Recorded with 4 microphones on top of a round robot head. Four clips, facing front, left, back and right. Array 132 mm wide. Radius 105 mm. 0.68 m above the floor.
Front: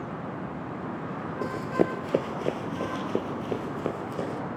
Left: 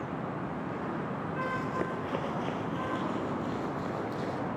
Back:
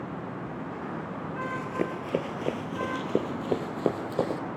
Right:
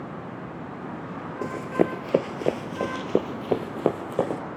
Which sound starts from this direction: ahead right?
Running footsteps, at 1.4 s.